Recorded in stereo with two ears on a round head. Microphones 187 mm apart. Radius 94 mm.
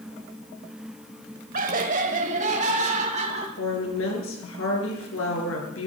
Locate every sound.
1.5 s laughter: 40° right (ahead or behind), 1.6 m; by 3.5 s 35° right (ahead or behind), 3.5 m
3.6 s a woman speaking: 70° left (ahead or behind), 5.5 m